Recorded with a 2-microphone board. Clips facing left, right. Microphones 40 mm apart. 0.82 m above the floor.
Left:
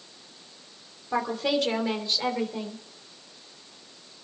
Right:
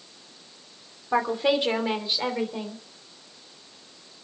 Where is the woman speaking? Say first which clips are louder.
Right 3 dB; 25° right (ahead or behind), 3 m; by 2.8 s 15° right (ahead or behind), 3.5 m.